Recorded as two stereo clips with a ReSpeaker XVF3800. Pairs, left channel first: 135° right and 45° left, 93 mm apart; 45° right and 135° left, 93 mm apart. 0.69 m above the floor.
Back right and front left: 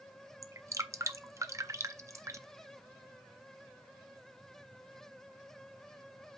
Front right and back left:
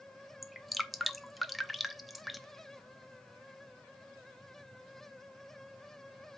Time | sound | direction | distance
0.4 | dripping | 45° left | 0.5 m